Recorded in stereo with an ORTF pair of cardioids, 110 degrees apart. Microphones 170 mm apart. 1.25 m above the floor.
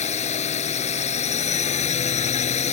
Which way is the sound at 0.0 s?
40° left.